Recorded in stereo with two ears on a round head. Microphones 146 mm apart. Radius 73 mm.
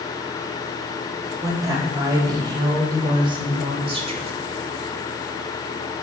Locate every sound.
1.4 s a woman speaking: 20° right (ahead or behind), 4 m; by 4.3 s 40° right (ahead or behind), 2.5 m